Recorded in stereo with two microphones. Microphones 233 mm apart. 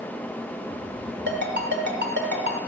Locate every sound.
1.3 s a ringtone: 50° right (ahead or behind), 1.3 m